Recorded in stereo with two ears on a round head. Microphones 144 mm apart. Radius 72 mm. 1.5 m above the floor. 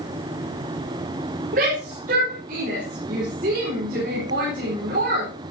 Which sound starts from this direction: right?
A shout, at 1.5 s.